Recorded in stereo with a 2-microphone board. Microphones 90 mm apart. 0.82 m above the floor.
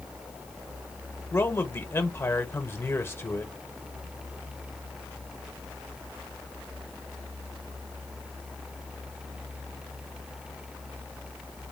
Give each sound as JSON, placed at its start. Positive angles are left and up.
{"t": 1.3, "sound": "a man speaking", "side_deg": 25, "distance_m": 0.9}